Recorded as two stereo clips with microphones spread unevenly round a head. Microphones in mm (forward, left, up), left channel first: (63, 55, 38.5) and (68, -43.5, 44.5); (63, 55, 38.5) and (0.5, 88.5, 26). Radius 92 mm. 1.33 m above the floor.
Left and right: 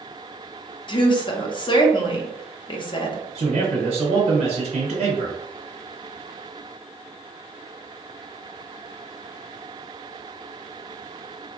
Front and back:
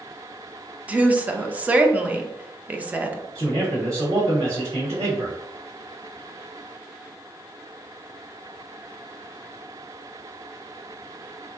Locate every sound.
0.9 s a woman speaking: 95° left, 0.6 m
3.4 s a man speaking: 135° right, 0.9 m